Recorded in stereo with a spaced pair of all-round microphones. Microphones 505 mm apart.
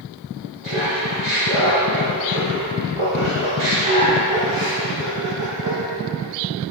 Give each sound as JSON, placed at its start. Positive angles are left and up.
{"t": 0.6, "sound": "laughter", "side_deg": -70, "distance_m": 2.5}